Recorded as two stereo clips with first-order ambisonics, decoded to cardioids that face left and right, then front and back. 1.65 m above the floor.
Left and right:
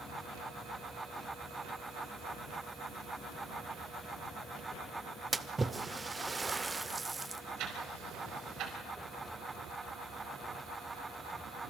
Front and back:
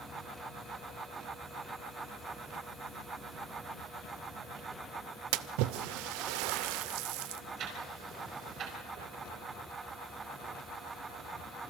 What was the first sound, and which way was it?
A splash, 170° right.